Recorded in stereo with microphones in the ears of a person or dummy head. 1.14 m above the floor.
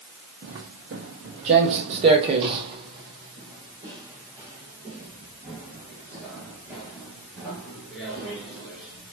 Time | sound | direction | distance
0.4 | footsteps | 45° right (ahead or behind) | 1.6 m